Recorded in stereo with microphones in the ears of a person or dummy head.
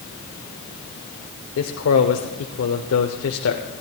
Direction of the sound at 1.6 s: 70° left (ahead or behind).